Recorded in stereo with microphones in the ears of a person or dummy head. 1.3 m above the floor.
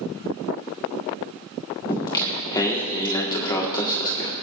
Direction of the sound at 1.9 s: 20° left (ahead or behind).